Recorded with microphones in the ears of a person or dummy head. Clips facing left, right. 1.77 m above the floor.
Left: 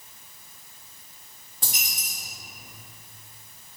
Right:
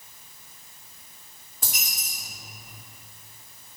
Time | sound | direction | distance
1.6 | a dropped coin | 25° left (ahead or behind) | 1.6 m